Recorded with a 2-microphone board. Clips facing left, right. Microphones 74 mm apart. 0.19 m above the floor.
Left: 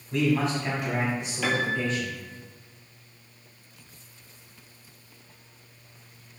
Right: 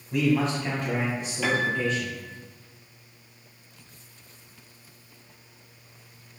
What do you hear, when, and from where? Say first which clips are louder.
0.1 s a man speaking: right 1 dB; 15° right (ahead or behind), 1.0 m; by 2.4 s 35° left (ahead or behind), 2.5 m
1.4 s a piano: right 2 dB; 5° right (ahead or behind), 0.8 m